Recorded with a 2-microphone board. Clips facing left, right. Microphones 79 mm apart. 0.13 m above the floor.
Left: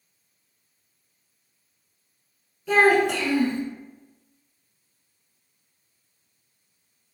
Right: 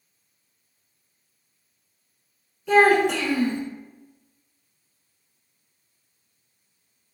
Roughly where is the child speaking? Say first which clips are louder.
Right 2 dB; centre.